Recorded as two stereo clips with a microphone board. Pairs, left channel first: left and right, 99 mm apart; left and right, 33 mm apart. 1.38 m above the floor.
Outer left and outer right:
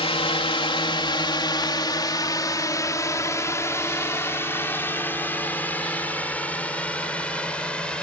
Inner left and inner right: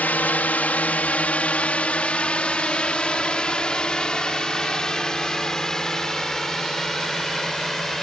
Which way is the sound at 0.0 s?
65° left (ahead or behind).